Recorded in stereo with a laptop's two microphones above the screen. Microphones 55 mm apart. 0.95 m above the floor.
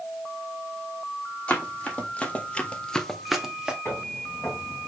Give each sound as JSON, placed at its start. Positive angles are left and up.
{"t": 1.5, "sound": "running footsteps", "side_deg": 25, "distance_m": 2.5}
{"t": 3.9, "sound": "footsteps", "side_deg": 45, "distance_m": 3.5}